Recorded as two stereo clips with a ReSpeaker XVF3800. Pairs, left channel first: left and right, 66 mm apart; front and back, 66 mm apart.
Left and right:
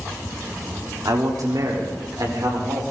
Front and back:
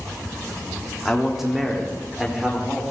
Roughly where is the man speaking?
Right.